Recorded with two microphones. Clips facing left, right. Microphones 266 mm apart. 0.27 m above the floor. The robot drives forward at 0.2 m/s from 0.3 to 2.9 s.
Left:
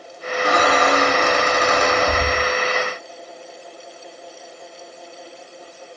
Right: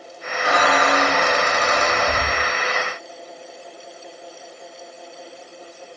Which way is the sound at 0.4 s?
45° left (ahead or behind).